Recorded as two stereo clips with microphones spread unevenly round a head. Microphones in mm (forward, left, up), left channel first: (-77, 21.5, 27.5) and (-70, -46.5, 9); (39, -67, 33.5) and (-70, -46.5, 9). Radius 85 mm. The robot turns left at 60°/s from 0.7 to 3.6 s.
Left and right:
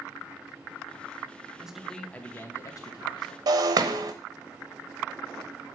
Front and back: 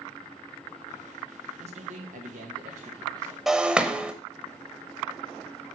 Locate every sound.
1.6 s a man speaking: 165° right, 1.8 m; by 3.4 s 85° left, 1.8 m
3.5 s breaking glass: 90° right, 1.0 m; by 4.1 s 95° right, 1.0 m